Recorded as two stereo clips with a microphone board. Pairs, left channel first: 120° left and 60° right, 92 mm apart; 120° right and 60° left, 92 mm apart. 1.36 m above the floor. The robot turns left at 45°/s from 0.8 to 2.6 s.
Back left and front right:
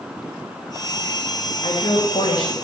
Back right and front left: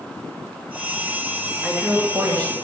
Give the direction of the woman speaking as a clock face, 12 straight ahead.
7 o'clock.